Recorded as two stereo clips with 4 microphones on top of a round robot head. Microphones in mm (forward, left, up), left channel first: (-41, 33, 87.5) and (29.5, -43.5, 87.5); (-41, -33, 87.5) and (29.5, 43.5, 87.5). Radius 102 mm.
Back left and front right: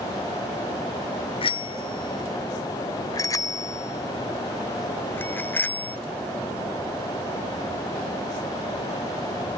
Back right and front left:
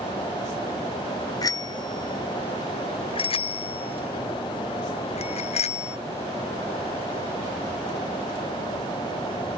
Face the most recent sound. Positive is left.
turn(degrees=-155)